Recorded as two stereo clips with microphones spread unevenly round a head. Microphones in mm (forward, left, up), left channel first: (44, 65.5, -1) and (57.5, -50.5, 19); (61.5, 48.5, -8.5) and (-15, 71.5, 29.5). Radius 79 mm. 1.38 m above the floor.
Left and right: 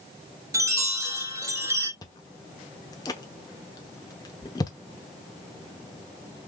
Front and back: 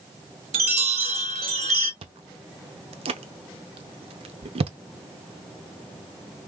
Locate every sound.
0.5 s a chime: 155° right, 0.8 m
2.0 s chewing: 160° left, 0.8 m